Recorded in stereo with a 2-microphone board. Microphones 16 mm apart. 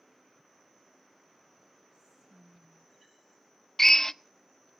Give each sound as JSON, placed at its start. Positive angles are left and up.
{"t": 1.9, "sound": "whispering", "side_deg": -55, "distance_m": 0.8}
{"t": 3.8, "sound": "a drill", "side_deg": 25, "distance_m": 0.6}